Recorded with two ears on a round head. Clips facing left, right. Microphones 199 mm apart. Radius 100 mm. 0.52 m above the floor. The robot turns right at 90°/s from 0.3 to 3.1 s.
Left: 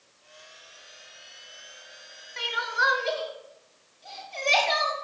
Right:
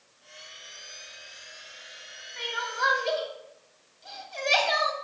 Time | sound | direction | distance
2.4 | crying | 55° left (ahead or behind) | 1.0 m